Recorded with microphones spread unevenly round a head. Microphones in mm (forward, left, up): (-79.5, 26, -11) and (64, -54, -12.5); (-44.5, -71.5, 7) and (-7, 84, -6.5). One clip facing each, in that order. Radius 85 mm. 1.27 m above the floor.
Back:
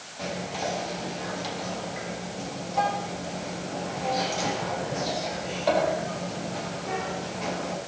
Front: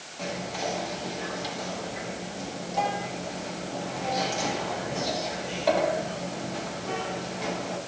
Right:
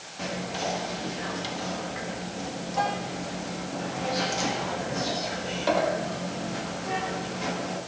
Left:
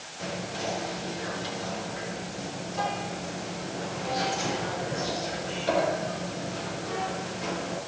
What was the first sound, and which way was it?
Whispering, 120° right.